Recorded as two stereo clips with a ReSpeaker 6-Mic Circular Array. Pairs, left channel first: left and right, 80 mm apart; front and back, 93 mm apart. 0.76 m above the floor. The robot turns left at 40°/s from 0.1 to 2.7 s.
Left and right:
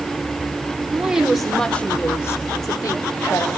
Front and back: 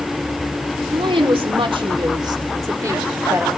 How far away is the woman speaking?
About 2.5 m.